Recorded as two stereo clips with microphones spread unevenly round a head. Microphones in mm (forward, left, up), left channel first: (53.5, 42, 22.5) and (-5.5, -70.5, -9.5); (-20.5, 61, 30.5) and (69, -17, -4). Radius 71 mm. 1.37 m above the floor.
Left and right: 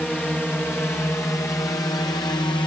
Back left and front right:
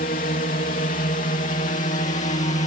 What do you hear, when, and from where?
0.0 s a drone: 150° left; by 2.7 s 125° left